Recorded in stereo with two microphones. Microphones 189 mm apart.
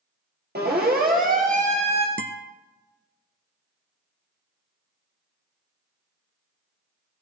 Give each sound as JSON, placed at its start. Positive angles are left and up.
{"t": 0.6, "sound": "a siren", "side_deg": -60, "distance_m": 4.0}
{"t": 2.2, "sound": "a guitar", "side_deg": -85, "distance_m": 0.6}